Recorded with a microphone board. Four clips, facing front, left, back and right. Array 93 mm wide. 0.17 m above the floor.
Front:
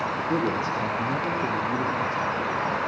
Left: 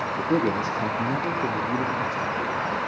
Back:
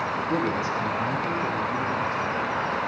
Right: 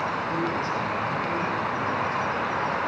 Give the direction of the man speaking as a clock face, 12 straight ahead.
9 o'clock.